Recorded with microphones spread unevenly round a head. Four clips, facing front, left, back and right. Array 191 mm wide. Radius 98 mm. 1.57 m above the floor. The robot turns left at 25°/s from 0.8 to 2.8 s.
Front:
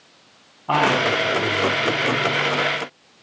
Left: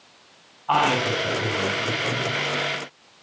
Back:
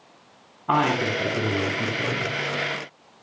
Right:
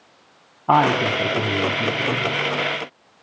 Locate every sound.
0.7 s a woman speaking: 105° right, 9.5 m; by 2.3 s 140° right, 9.5 m